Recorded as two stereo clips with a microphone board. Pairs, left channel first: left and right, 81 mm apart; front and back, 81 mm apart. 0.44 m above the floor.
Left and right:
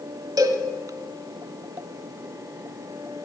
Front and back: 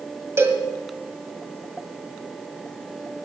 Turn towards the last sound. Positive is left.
turn(degrees=-125)